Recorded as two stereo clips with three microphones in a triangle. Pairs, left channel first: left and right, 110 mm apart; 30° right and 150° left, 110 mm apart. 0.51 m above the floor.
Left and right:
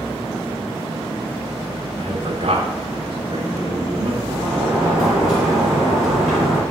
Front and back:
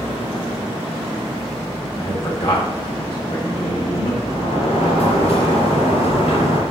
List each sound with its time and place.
2.0 s a man speaking: 65° right, 2 m; by 4.2 s 40° right, 2.5 m
4.3 s a sliding door: 5° right, 4 m